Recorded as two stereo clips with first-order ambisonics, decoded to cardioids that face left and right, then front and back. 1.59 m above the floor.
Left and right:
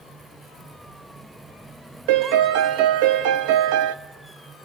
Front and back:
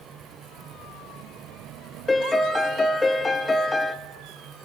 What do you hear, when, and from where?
2.1 s a piano: 80° right, 0.9 m